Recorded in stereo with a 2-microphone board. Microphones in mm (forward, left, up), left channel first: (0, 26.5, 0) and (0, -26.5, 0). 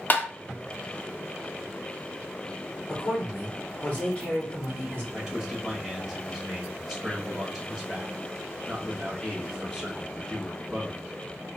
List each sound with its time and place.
0.1 s tapping: 40° left (ahead or behind), 0.6 m
2.9 s a man speaking: 35° left (ahead or behind), 2.5 m
5.1 s a man speaking: 5° left (ahead or behind), 1.1 m